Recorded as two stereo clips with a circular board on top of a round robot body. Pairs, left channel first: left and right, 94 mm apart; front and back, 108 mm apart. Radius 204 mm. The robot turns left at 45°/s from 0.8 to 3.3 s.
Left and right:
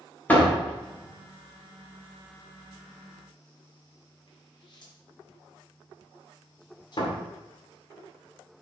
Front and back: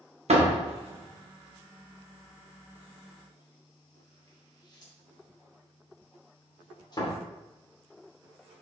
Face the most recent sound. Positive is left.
turn(degrees=50)